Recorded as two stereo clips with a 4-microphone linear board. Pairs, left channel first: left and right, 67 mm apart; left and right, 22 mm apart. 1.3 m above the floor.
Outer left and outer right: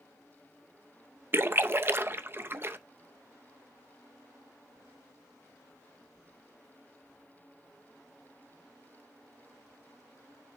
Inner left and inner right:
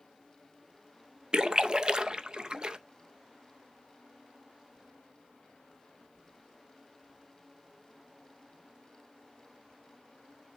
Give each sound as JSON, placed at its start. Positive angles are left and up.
{"t": 1.3, "sound": "a splash", "side_deg": -35, "distance_m": 0.6}